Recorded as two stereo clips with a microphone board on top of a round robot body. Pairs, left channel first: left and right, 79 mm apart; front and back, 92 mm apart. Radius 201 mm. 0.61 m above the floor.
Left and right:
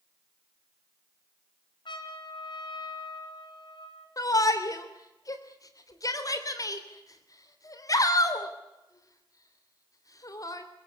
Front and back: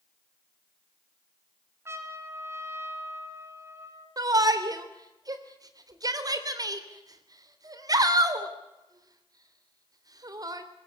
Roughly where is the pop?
No pop in this recording.